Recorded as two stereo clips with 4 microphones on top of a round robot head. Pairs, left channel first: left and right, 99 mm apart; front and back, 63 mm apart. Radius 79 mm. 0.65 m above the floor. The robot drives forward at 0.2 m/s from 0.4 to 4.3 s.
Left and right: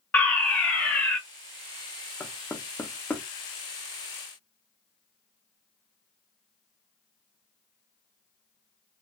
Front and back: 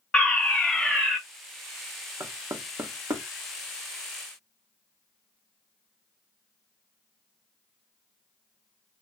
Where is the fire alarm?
40° left, 1.5 m; by 1.2 s 55° left, 1.4 m.